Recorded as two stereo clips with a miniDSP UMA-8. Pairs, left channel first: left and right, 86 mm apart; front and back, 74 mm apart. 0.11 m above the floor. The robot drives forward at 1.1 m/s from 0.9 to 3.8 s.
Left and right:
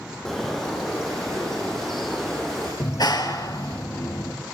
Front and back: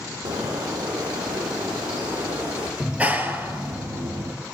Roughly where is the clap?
Left.